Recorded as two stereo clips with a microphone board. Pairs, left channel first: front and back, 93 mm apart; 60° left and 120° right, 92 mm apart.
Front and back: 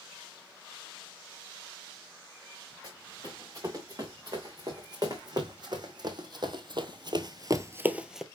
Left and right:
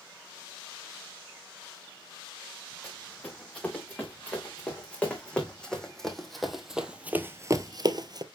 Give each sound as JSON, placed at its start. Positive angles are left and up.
{"t": 2.8, "sound": "running footsteps", "azimuth_deg": 135, "distance_m": 4.0}